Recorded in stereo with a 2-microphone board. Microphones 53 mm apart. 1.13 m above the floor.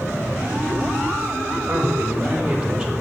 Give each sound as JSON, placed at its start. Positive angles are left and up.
{"t": 1.7, "sound": "a man speaking", "side_deg": -55, "distance_m": 2.0}